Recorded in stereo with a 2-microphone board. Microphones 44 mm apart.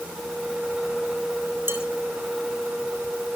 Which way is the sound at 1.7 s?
60° right (ahead or behind).